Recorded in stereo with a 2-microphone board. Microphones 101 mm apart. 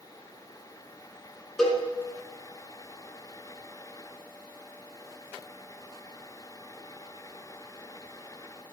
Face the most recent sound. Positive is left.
turn(degrees=5)  # may be behind; listen again after turning